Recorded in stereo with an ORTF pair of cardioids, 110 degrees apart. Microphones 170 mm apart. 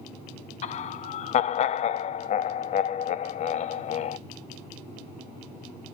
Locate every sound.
0.6 s laughter: 40° left, 0.6 m